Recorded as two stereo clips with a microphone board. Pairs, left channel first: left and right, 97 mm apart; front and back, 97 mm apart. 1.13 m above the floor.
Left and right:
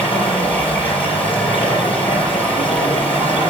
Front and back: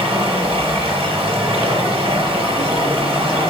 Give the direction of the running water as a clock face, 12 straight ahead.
7 o'clock.